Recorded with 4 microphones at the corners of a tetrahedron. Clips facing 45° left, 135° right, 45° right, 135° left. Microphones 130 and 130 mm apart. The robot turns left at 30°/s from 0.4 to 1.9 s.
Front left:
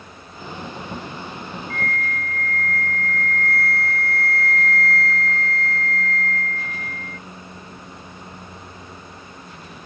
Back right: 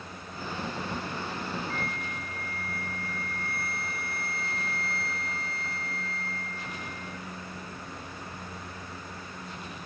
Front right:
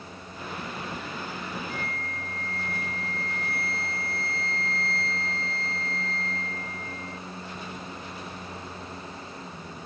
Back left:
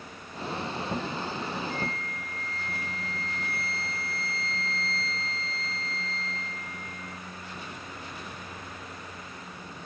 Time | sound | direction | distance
1.7 | a flute | 50° right | ?